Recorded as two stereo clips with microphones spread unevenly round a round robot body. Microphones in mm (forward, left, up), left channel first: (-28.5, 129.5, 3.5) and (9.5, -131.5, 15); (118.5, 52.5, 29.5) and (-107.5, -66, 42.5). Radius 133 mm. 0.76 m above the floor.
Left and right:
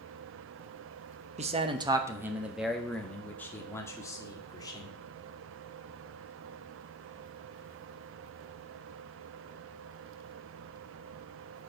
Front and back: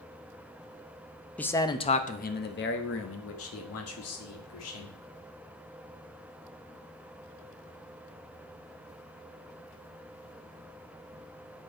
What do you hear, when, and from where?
1.4 s a man speaking: 45° right, 1.0 m; by 5.0 s 25° left, 3 m